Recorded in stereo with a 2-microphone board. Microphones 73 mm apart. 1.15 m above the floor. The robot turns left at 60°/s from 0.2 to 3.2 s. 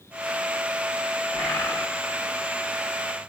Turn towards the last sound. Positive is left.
turn(degrees=65)